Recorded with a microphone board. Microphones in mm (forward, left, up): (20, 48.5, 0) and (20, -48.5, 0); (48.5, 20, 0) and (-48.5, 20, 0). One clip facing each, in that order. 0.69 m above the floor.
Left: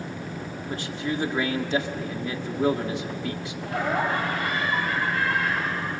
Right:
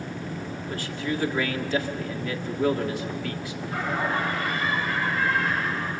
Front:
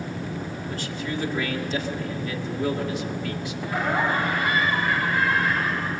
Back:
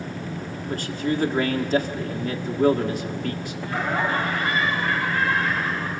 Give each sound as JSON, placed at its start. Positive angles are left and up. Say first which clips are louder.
{"t": 0.7, "sound": "a man speaking", "louder": "left 1 dB, back 8 dB", "azimuth_deg": 150, "distance_m": 1.7}
{"t": 3.6, "sound": "laughter", "louder": "left 3 dB, front 1 dB", "azimuth_deg": 75, "distance_m": 4.0}